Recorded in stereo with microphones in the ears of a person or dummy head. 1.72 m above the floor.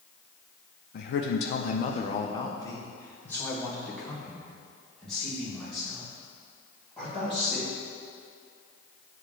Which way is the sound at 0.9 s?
55° left (ahead or behind).